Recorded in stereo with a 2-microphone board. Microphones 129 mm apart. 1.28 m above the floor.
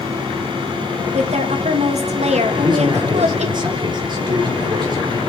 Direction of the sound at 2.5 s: 35° right (ahead or behind).